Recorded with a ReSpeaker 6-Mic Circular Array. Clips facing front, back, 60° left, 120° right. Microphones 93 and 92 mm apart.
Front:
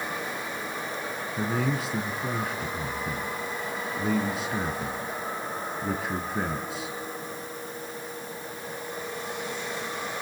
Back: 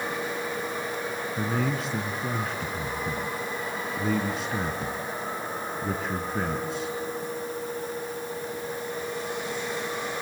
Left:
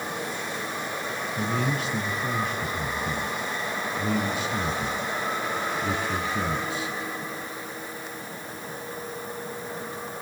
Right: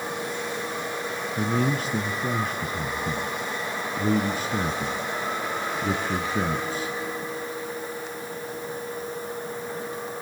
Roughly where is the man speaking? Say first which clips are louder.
Front 1 dB, right 3 dB; right.